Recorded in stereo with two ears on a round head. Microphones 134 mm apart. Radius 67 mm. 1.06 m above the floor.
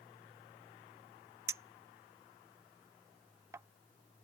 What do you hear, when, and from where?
1.5 s a clink: 20° right (ahead or behind)